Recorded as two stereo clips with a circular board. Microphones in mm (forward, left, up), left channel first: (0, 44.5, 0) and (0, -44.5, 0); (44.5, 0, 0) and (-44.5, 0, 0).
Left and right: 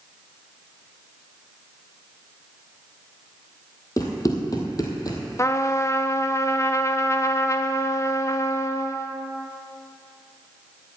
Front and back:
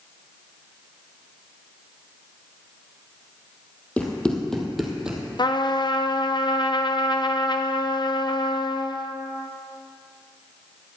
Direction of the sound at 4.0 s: 65° left.